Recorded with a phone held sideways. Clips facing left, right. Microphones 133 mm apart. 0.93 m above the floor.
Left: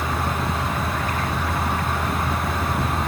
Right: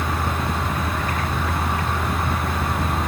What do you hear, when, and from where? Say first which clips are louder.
0.0 s a fan: even; centre (ahead or behind), 2.5 m